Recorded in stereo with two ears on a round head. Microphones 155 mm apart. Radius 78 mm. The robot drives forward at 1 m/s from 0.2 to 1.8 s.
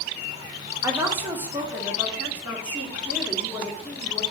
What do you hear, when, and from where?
0.8 s a woman speaking: 15° right (ahead or behind), 1.2 m; by 4.2 s 10° right (ahead or behind), 2.0 m